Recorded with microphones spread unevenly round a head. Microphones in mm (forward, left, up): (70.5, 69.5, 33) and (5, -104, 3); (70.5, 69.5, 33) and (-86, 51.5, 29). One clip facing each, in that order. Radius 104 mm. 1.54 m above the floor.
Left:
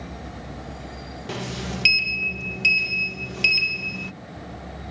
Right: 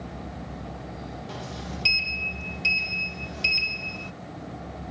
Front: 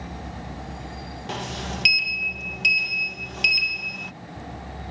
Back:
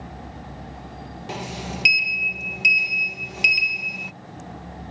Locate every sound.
1.3 s a sliding door: 105° left